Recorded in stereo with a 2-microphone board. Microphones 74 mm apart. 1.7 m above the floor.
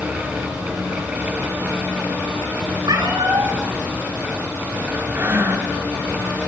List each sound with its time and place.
2.8 s a cat meowing: 70° right (ahead or behind), 9 m
5.1 s breathing: 35° right (ahead or behind), 2.5 m